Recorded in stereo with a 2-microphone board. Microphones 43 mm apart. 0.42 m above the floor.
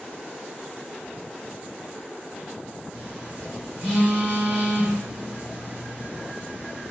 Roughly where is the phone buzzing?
Right.